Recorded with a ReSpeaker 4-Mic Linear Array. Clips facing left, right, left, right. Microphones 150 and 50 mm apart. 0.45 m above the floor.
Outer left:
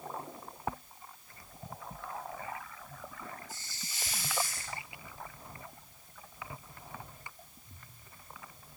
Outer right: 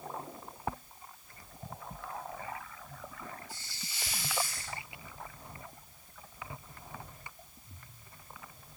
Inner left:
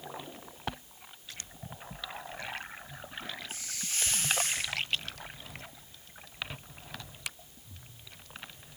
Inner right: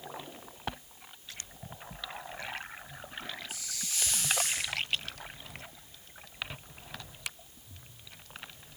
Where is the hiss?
50° left (ahead or behind), 3 m.